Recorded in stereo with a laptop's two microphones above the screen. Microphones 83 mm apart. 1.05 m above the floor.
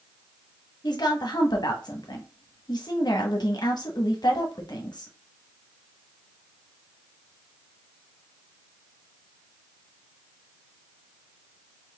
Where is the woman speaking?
60° left (ahead or behind), 1.0 m.